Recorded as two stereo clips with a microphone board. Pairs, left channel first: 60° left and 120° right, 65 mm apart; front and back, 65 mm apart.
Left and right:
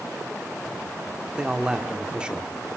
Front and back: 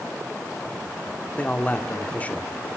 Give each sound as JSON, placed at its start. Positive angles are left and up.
{"t": 1.4, "sound": "a man speaking", "azimuth_deg": -55, "distance_m": 1.3}